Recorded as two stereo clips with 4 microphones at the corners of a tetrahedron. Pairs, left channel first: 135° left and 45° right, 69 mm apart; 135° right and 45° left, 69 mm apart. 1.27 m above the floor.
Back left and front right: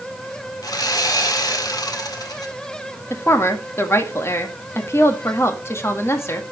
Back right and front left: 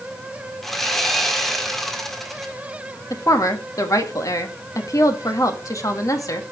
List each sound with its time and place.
0.6 s sawing: 140° left, 1.5 m
3.1 s a woman speaking: 175° right, 1.8 m